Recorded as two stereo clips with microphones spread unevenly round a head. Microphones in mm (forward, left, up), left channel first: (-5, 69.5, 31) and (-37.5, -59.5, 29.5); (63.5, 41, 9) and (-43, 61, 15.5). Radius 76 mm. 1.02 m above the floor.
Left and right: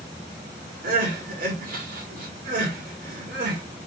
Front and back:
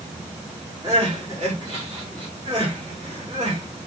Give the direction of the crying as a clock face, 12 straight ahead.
4 o'clock.